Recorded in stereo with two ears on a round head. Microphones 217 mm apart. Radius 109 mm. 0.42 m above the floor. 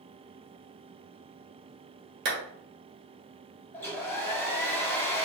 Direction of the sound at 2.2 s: 50° right (ahead or behind).